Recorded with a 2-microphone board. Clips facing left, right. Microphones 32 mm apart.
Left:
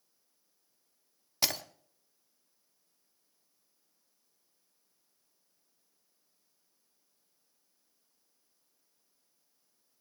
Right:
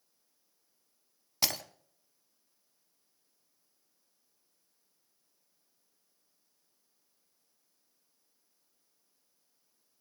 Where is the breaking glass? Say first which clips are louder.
Even; centre (ahead or behind), 0.9 m.